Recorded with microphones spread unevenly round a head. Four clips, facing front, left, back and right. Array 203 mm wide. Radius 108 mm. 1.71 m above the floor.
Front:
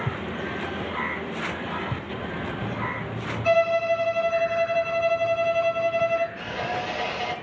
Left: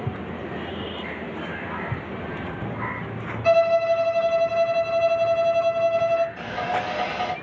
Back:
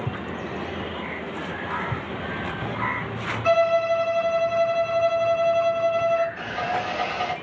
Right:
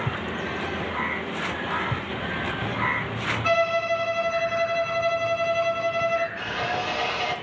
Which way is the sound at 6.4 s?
85° left.